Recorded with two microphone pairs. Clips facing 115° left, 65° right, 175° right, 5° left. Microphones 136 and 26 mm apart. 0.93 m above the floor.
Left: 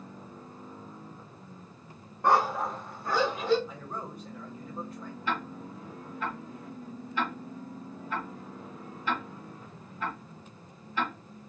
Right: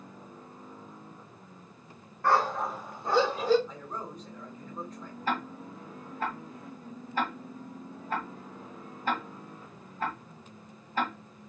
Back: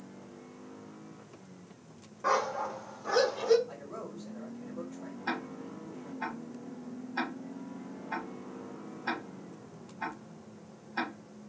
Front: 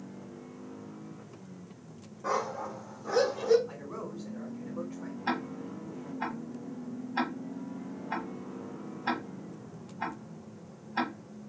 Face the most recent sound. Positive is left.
turn(degrees=-50)